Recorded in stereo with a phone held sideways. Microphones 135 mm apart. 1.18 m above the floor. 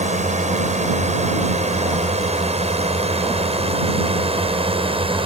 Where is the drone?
60° right (ahead or behind); by 5.3 s 45° right (ahead or behind).